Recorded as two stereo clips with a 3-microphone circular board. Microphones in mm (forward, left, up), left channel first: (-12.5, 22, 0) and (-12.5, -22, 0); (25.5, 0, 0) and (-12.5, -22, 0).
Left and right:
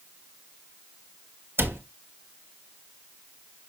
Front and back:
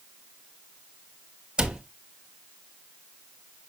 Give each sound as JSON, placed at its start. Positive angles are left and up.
{"t": 1.6, "sound": "a cupboard door", "azimuth_deg": -80, "distance_m": 1.5}